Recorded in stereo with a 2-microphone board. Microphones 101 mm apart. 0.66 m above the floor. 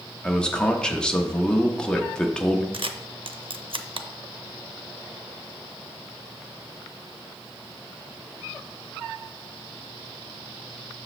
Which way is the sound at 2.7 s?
60° right (ahead or behind).